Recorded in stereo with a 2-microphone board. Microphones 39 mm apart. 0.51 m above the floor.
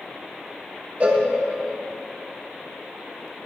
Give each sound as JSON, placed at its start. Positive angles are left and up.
{"t": 1.0, "sound": "a cowbell", "side_deg": -30, "distance_m": 0.7}